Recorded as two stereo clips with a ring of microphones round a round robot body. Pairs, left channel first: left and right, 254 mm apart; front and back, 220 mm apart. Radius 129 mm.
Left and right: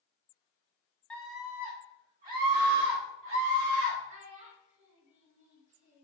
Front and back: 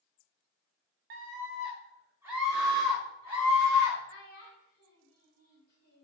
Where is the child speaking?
25° right, 1.6 m.